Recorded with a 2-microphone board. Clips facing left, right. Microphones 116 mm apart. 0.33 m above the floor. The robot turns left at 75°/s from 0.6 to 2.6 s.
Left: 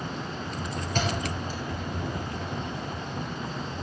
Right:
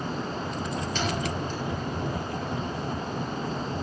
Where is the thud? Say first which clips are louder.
Left 2 dB; 50° left (ahead or behind), 3.5 m; by 1.6 s centre (ahead or behind), 3.5 m.